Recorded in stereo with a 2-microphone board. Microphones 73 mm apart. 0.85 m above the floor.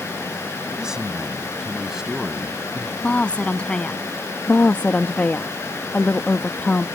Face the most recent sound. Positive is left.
turn(degrees=20)  # may be behind; listen again after turning